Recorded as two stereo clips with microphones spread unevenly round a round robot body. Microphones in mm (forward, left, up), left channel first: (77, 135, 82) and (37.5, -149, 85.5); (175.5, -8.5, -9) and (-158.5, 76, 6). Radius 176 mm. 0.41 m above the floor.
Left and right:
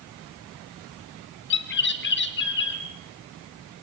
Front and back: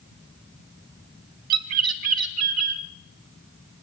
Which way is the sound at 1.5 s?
140° left.